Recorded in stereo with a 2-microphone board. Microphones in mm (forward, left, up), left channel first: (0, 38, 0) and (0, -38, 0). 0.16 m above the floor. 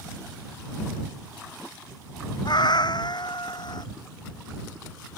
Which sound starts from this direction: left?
A cat meowing, at 2.5 s.